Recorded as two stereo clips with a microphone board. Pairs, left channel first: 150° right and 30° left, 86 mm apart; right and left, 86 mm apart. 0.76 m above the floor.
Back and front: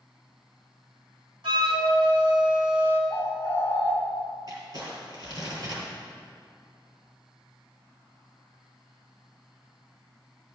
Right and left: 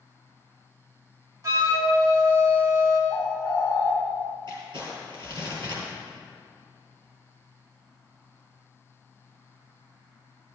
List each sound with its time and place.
1.4 s a flute: 45° left, 1.8 m
3.1 s a bird: 55° left, 2.5 m
4.5 s crumpling: 60° left, 4 m